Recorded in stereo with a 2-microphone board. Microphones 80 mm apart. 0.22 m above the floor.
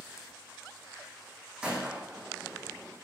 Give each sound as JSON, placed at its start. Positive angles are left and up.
{"t": 1.6, "sound": "a gunshot", "side_deg": -15, "distance_m": 6.0}